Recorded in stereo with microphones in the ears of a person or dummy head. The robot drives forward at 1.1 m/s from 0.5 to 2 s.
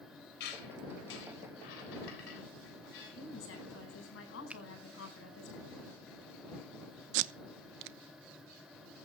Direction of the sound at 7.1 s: 65° right (ahead or behind).